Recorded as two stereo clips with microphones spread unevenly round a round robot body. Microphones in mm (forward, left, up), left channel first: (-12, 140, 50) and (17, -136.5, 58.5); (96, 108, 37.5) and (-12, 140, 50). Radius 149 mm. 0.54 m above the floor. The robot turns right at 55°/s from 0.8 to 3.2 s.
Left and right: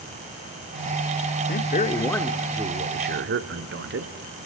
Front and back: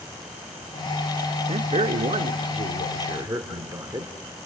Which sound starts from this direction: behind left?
A man speaking, at 1.5 s.